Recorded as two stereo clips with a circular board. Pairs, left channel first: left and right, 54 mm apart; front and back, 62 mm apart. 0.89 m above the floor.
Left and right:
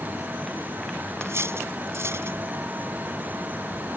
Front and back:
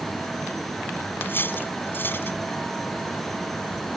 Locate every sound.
1.2 s cutlery clinking: 55° right